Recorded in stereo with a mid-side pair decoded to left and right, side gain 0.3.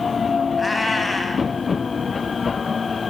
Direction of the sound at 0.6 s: 30° left.